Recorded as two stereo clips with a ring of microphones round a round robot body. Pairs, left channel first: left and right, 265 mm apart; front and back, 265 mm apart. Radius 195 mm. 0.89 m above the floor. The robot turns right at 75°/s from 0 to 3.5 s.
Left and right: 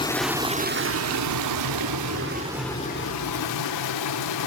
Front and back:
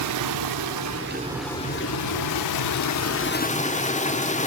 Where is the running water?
165° left, 1.2 m; by 4.5 s 65° left, 1.2 m.